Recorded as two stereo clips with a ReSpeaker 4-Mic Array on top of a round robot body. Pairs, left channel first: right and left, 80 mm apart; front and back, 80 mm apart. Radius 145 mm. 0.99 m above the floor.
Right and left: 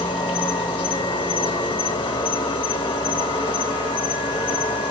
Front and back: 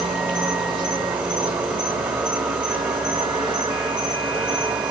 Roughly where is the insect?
Right.